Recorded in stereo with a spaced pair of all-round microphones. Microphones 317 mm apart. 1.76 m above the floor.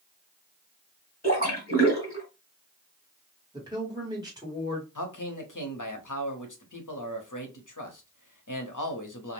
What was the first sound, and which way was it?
A splash, 30° left (ahead or behind).